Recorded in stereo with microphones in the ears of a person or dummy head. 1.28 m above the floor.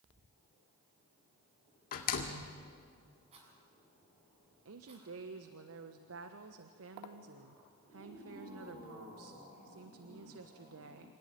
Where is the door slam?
50° left (ahead or behind), 2 m.